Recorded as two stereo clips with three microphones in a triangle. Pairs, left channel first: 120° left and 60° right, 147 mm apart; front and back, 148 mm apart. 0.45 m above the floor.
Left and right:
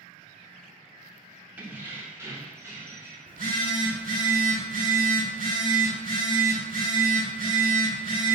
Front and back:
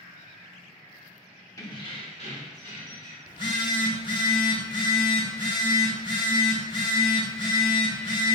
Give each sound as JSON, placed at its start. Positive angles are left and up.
{"t": 1.6, "sound": "keys jangling", "azimuth_deg": 0, "distance_m": 0.7}
{"t": 3.3, "sound": "a phone buzzing", "azimuth_deg": -60, "distance_m": 1.2}